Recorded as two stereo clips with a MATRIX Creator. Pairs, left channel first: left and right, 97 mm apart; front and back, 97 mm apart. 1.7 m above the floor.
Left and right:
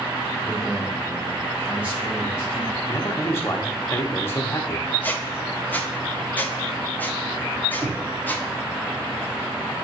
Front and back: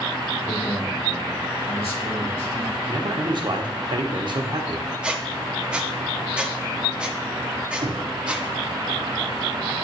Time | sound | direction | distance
0.4 | a man speaking | 5° right | 2 m
2.9 | a man speaking | 150° left | 1.1 m
5.0 | a squeak | 120° left | 0.7 m
7.8 | knocking | 160° right | 1.2 m